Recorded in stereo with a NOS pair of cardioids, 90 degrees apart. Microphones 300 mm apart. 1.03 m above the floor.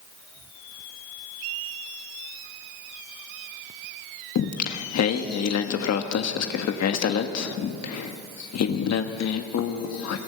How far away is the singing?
About 1.5 m.